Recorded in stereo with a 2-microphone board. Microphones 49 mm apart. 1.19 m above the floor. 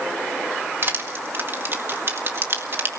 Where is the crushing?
50° right (ahead or behind), 1.8 m.